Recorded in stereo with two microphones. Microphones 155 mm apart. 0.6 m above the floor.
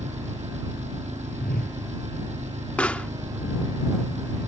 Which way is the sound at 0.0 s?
50° right (ahead or behind).